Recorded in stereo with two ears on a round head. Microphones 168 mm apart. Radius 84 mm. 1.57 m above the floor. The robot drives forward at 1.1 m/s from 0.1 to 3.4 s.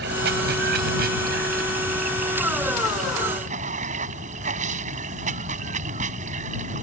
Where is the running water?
60° right (ahead or behind); by 6.8 s 40° right (ahead or behind).